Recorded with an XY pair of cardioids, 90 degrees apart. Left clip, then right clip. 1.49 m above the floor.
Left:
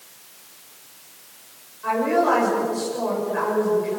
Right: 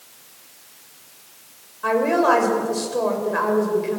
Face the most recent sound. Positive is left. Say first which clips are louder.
# right 2 dB
turn(degrees=-70)